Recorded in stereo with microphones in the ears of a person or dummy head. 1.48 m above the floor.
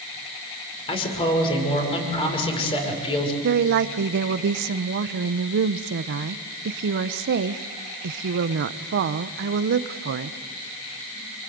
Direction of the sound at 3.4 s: 55° right (ahead or behind).